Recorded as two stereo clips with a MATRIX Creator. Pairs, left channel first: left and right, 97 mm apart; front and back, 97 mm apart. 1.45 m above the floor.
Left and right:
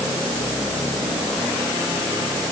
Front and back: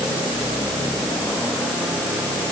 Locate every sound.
Only background noise.